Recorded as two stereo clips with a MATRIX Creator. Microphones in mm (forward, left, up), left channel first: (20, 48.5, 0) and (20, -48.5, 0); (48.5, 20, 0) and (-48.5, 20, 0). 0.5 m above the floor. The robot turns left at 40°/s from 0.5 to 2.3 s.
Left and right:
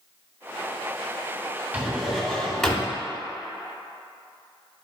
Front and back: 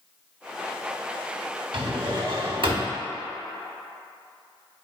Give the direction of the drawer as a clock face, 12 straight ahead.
5 o'clock.